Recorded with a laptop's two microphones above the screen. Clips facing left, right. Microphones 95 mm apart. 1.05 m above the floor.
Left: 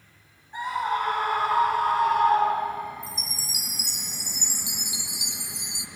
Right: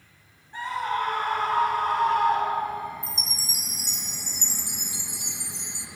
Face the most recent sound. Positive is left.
turn(degrees=10)  # may be behind; listen again after turning